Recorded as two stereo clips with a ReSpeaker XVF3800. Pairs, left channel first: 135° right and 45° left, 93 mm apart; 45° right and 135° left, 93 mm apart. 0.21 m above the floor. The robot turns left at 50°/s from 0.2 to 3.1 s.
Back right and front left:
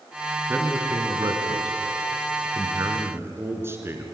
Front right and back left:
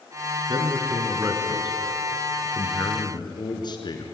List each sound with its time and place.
0.5 s a man speaking: 115° left, 3 m; by 4.0 s 15° right, 3 m